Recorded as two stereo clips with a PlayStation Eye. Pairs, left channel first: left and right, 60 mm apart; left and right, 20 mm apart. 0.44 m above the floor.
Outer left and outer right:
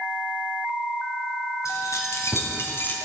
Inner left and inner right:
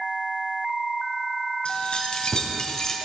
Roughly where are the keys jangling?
Left.